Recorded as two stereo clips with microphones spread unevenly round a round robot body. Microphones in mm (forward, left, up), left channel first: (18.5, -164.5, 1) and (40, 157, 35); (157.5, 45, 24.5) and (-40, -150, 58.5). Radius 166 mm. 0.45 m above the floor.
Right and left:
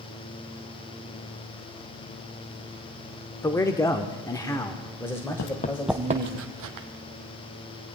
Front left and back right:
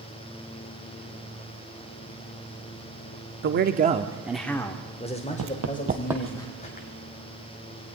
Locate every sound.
3.4 s a man speaking: 165° right, 0.9 m; by 6.4 s 10° right, 2.5 m
5.4 s running footsteps: 145° right, 0.8 m; by 6.9 s 110° left, 1.2 m